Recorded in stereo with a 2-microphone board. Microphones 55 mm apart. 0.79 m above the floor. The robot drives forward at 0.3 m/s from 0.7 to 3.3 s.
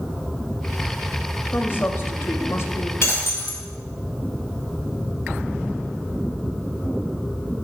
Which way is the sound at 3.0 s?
55° left (ahead or behind).